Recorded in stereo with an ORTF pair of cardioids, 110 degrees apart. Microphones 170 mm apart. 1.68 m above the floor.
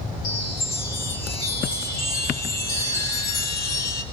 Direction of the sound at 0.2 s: 65° left.